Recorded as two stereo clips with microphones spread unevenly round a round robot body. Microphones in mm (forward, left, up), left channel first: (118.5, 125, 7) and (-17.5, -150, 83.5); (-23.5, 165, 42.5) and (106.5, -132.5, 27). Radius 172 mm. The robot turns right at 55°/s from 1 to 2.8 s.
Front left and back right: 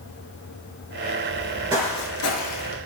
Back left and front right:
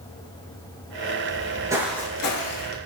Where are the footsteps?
155° right, 1.0 m; by 2.8 s 115° left, 1.2 m.